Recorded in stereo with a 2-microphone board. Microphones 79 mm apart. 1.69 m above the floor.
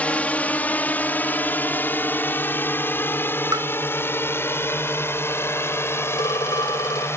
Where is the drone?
20° left (ahead or behind); by 7.2 s 35° left (ahead or behind).